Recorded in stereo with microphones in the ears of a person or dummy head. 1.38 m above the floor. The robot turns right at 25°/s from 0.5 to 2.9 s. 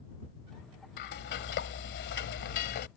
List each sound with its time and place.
1.0 s frying: 65° left; by 2.9 s 110° left